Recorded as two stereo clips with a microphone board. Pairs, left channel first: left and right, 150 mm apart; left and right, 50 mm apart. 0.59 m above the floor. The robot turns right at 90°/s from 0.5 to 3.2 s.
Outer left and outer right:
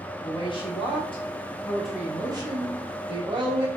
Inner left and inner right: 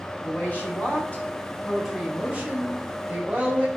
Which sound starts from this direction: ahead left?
A woman speaking, at 0.2 s.